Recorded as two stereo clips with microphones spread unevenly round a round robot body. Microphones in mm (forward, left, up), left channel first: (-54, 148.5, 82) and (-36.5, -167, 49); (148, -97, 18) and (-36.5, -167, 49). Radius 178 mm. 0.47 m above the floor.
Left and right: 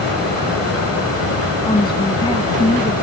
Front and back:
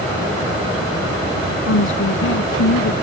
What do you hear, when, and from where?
1.7 s a woman speaking: 15° left